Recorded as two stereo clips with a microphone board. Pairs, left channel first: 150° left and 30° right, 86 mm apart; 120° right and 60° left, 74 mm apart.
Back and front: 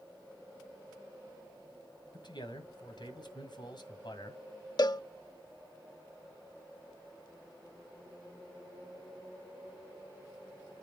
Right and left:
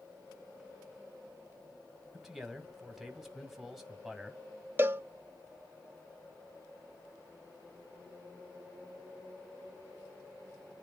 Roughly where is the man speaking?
Behind left.